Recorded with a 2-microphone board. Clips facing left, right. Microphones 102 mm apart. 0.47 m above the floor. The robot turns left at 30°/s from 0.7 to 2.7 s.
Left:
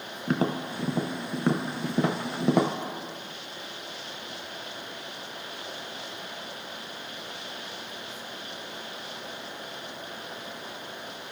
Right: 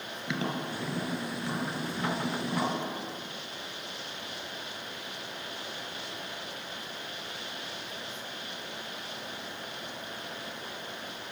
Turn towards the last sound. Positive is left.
turn(degrees=75)  # may be behind; listen again after turning